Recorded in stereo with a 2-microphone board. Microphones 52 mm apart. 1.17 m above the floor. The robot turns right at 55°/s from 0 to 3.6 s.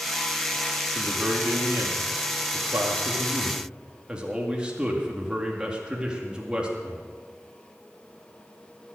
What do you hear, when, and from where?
0.9 s a man speaking: 165° right, 2 m; by 7.0 s 20° right, 2 m